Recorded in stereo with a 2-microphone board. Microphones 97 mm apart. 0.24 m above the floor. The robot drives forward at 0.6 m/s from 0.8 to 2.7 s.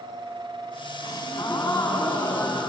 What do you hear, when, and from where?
1.0 s a gasp: 45° left (ahead or behind), 1.0 m; by 2.7 s 25° left (ahead or behind), 1.7 m